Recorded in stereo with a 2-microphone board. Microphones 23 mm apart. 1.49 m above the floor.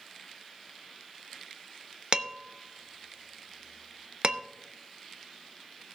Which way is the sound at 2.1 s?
40° right (ahead or behind).